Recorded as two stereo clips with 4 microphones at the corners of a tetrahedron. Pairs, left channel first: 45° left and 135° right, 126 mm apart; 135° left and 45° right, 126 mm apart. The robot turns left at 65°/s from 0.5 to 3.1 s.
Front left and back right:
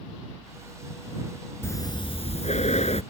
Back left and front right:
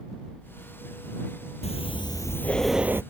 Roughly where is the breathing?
Behind left.